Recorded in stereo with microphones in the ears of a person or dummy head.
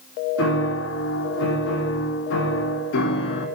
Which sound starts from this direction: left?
A piano, at 0.4 s.